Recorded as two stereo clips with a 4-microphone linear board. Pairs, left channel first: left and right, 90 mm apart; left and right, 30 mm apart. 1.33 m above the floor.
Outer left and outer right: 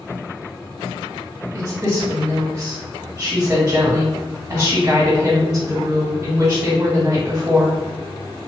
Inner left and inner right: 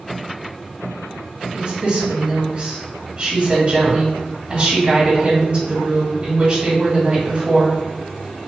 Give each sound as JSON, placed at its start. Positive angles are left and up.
{"t": 1.5, "sound": "a woman speaking", "side_deg": -35, "distance_m": 1.2}